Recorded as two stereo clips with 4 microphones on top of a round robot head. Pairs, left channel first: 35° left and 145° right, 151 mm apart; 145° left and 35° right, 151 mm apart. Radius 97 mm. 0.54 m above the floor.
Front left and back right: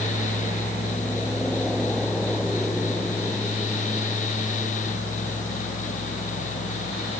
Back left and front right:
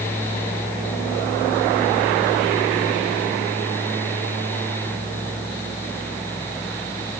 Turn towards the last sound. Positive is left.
No sound to turn to.